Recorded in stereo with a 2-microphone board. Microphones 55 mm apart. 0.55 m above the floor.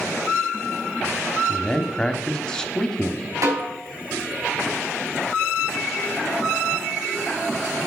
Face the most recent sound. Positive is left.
turn(degrees=-75)  # may be behind; listen again after turning